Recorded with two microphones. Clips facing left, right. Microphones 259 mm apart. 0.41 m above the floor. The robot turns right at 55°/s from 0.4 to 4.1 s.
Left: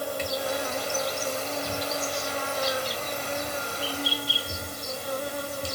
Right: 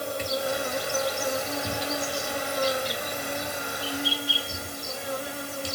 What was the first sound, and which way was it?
An insect, 160° right.